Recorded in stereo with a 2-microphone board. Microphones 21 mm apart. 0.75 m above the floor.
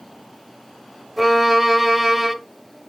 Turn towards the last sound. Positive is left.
turn(degrees=-10)  # may be behind; listen again after turning